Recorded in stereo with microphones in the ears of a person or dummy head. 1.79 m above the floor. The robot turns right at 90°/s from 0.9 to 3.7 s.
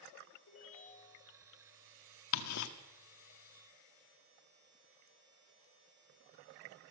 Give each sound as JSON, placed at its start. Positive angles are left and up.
{"t": 0.5, "sound": "a ringtone", "azimuth_deg": 90, "distance_m": 4.0}
{"t": 2.3, "sound": "ticking", "side_deg": 80, "distance_m": 1.0}